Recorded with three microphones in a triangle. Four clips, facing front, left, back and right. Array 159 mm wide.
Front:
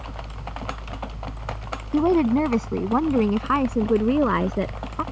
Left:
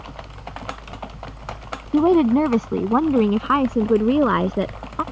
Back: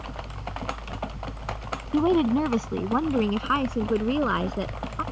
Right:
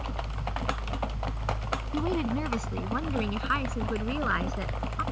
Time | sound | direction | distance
1.9 | a woman speaking | 80° left | ?